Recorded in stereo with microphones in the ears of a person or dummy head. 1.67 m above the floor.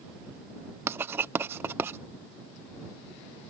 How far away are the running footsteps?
No running footsteps in this recording.